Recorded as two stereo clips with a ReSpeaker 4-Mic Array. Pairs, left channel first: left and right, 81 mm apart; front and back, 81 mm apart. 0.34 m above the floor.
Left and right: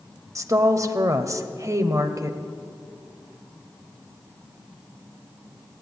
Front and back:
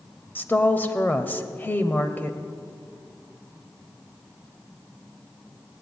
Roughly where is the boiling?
I don't hear boiling.